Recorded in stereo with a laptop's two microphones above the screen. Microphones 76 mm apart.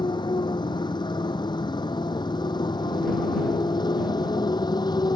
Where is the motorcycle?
80° left; by 5.2 s 65° left (ahead or behind).